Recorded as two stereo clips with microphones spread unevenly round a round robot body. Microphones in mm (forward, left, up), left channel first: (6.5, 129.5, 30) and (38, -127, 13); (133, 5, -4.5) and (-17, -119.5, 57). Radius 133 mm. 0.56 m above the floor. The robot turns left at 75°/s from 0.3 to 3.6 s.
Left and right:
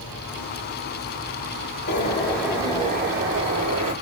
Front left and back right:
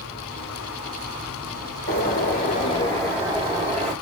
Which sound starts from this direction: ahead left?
A bird, at 1.9 s.